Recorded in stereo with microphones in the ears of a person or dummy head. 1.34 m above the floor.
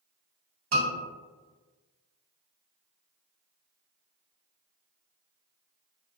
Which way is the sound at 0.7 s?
80° right.